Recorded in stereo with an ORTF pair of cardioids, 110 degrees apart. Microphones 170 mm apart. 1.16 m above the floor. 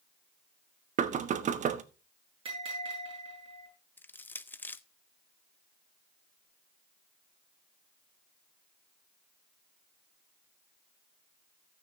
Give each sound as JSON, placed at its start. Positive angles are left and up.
{"t": 1.0, "sound": "knocking", "azimuth_deg": -45, "distance_m": 1.1}
{"t": 2.5, "sound": "a bell", "azimuth_deg": -30, "distance_m": 9.5}
{"t": 4.0, "sound": "crushing", "azimuth_deg": 10, "distance_m": 0.6}